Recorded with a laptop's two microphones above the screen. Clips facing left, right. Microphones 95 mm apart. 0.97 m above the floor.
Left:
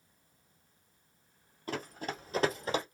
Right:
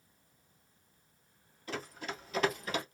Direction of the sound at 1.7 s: 45° left (ahead or behind).